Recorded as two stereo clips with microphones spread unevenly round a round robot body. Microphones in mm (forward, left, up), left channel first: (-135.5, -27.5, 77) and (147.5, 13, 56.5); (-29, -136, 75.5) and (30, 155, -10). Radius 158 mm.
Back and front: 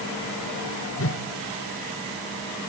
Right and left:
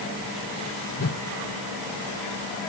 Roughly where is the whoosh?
Behind right.